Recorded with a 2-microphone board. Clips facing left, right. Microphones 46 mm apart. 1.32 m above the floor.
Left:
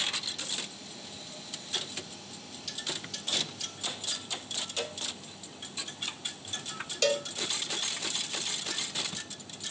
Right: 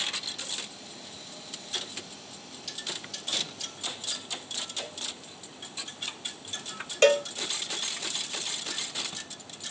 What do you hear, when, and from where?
4.8 s a cowbell: 60° left (ahead or behind), 2 m
7.0 s a cowbell: 45° right (ahead or behind), 0.5 m